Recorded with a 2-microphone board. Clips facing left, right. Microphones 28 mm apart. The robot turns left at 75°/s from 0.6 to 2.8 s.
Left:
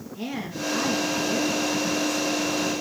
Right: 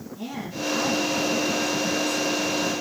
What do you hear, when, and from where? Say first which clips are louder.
0.1 s a woman speaking: left 1 dB; 135° left, 2.5 m; by 2.7 s 20° right, 2.5 m